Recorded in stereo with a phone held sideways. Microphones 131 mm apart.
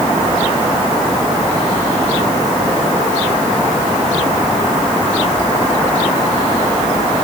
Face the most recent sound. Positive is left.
No sound to turn to.